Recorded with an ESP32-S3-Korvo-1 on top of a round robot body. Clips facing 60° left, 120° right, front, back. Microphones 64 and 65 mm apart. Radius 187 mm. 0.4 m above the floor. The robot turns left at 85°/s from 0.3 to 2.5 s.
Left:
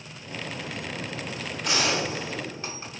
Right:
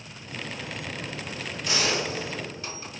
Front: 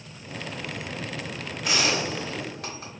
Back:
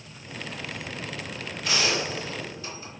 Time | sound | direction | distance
1.6 | a gunshot | 85° left | 1.8 m